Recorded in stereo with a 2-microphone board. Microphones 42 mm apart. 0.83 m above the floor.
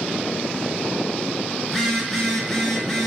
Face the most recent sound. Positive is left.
turn(degrees=5)  # may be behind; listen again after turning